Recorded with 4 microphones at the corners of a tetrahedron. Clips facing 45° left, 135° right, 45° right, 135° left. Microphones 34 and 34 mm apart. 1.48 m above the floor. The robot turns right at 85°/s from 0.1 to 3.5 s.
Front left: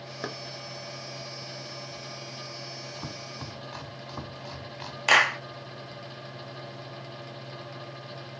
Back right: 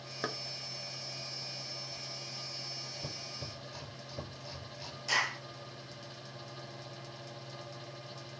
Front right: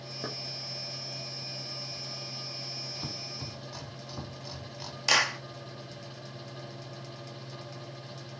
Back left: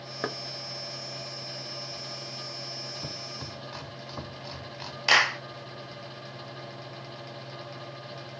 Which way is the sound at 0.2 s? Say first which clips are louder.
Front left 1 dB, back left 6 dB; 135° left.